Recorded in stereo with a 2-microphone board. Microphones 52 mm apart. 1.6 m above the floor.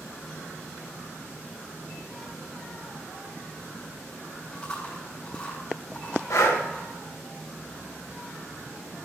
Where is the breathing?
75° left (ahead or behind), 1.7 m.